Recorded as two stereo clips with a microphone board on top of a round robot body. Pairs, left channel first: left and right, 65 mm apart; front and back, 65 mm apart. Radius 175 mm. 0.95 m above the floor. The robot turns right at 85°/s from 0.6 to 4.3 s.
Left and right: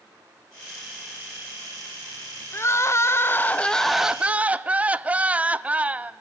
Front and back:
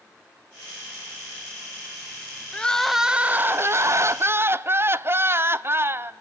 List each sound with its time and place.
2.5 s crying: 60° left, 0.8 m; by 6.1 s 150° right, 0.8 m